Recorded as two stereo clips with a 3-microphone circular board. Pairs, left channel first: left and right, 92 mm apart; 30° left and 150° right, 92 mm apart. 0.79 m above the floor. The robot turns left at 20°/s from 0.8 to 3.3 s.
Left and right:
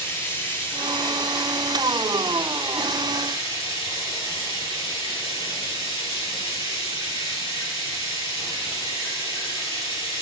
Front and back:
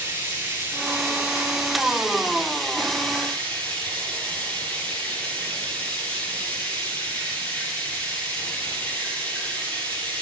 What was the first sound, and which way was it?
Running water, 150° left.